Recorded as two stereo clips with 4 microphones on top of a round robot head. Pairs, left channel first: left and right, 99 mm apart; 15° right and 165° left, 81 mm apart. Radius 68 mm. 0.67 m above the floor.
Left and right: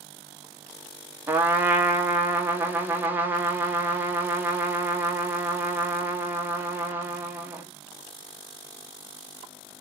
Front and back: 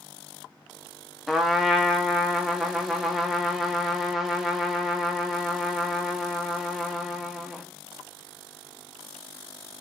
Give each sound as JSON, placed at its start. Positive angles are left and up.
{"t": 1.3, "sound": "a trumpet", "azimuth_deg": -115, "distance_m": 0.8}